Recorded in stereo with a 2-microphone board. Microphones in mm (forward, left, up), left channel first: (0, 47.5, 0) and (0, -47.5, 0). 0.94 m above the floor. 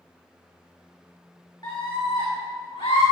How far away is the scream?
About 3 m.